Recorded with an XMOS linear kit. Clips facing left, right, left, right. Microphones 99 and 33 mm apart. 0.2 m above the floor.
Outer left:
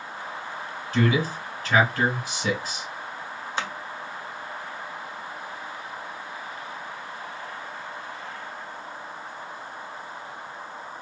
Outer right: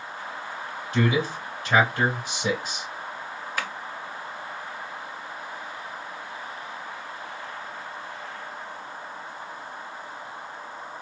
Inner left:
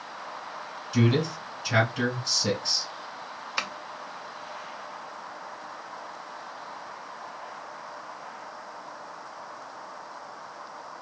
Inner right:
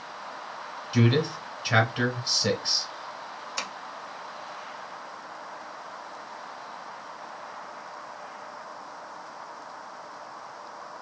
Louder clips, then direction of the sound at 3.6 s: Outer left 2 dB, inner left 4 dB; 30° left (ahead or behind).